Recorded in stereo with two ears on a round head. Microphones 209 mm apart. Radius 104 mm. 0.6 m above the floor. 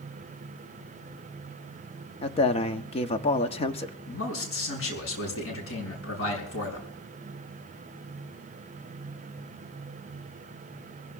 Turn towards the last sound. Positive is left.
turn(degrees=65)  # may be behind; listen again after turning